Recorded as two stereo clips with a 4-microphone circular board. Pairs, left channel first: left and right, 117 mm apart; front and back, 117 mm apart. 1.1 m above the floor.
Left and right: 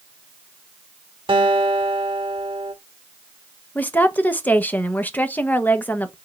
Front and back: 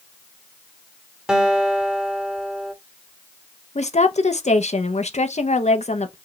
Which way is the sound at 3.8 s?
15° left.